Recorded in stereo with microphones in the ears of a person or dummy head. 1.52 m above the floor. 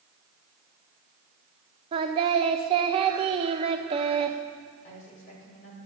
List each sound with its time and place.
1.9 s singing: 35° right (ahead or behind), 1.0 m
4.8 s a woman speaking: 40° left (ahead or behind), 5.5 m